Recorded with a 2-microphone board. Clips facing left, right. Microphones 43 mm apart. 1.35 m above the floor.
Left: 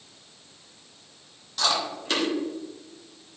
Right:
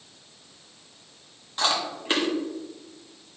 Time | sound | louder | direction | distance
1.6 | chewing | even | 25° right (ahead or behind) | 1.3 m